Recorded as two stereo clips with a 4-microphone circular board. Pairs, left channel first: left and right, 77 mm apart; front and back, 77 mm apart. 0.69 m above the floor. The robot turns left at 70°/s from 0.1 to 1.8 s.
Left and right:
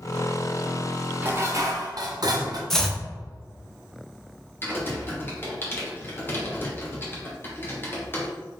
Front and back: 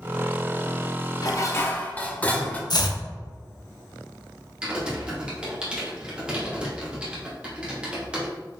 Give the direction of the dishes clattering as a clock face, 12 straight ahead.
1 o'clock.